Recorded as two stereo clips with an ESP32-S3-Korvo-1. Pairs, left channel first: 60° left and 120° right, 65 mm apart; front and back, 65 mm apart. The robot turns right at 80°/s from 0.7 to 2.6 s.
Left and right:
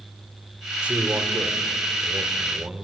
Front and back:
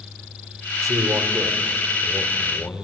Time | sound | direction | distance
0.8 | a man speaking | 170° left | 2 m